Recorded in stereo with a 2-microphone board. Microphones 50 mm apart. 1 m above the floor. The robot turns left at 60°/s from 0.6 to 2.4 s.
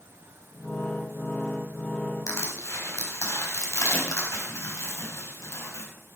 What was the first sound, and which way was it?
Crushing, 80° left.